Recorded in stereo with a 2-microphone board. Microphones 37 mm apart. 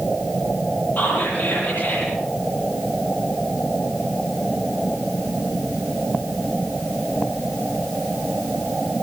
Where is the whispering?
55° left (ahead or behind), 9.5 m.